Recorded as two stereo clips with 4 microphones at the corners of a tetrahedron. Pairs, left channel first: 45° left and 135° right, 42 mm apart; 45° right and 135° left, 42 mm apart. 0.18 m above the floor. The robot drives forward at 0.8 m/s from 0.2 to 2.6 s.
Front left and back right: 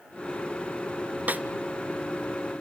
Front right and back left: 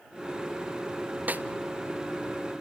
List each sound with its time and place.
1.3 s a snare drum: straight behind, 0.8 m